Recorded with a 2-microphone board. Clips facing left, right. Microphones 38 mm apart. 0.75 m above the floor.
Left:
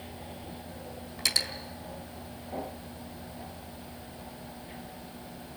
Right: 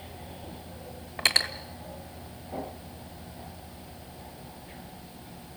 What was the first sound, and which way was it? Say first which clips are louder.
Cutlery clinking: right 5 dB; 40° right (ahead or behind).